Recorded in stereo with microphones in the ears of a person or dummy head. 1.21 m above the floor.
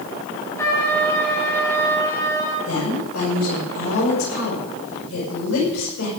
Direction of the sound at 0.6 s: 20° left (ahead or behind).